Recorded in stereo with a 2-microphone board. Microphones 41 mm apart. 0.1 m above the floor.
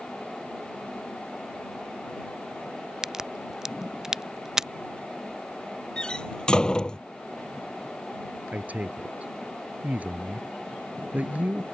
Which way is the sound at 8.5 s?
35° right (ahead or behind).